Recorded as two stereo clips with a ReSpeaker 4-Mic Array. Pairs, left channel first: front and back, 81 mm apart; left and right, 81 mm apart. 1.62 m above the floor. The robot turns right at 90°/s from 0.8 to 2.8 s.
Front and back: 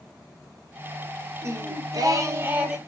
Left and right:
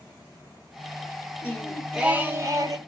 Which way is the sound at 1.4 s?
140° left.